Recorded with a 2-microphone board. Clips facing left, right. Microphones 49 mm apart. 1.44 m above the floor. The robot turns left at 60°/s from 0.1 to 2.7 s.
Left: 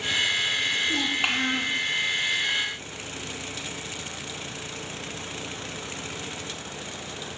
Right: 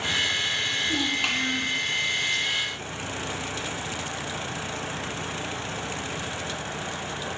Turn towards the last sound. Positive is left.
turn(degrees=70)